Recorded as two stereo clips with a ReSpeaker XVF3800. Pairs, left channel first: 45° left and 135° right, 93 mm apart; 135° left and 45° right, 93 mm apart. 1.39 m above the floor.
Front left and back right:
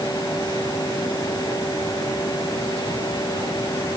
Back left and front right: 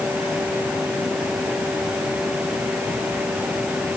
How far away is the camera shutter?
I don't hear a camera shutter.